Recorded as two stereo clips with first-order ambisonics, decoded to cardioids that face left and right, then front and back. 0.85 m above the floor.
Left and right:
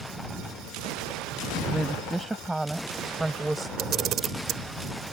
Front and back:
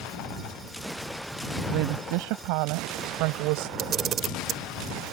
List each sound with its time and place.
1.7 s a woman speaking: 175° right
3.8 s a camera shutter: 135° right